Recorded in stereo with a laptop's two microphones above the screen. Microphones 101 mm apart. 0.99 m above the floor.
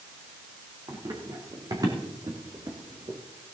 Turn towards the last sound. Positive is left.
turn(degrees=-35)  # may be behind; listen again after turning